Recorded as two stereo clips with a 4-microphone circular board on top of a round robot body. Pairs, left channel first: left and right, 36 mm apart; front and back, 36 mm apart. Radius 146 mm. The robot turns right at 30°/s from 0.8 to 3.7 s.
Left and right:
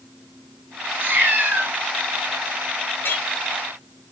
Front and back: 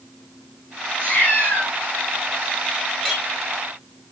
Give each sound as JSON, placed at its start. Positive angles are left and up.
{"t": 0.9, "sound": "a cat meowing", "azimuth_deg": -70, "distance_m": 1.0}
{"t": 3.0, "sound": "a clink", "azimuth_deg": 85, "distance_m": 6.5}